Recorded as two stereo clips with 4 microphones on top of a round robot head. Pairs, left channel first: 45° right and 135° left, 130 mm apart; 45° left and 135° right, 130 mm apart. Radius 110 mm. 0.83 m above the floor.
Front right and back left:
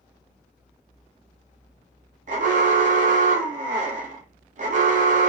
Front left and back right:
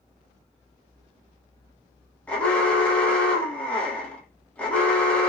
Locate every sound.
2.3 s an alarm: 125° left, 0.8 m